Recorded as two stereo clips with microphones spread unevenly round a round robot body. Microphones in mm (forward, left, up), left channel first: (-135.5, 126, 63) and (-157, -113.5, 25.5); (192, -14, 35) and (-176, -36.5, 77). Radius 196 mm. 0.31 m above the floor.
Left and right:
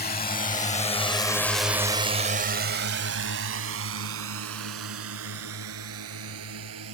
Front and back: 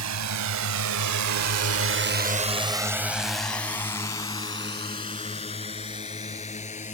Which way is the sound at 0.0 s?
135° left.